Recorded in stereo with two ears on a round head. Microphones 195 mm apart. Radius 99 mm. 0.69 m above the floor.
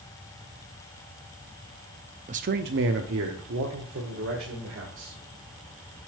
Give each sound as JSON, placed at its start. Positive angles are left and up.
{"t": 2.3, "sound": "a man speaking", "side_deg": -30, "distance_m": 0.5}